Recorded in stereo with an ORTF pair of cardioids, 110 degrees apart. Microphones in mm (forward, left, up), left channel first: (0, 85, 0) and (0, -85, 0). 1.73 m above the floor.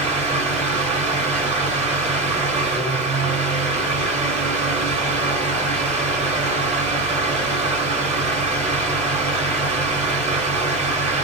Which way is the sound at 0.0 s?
45° right.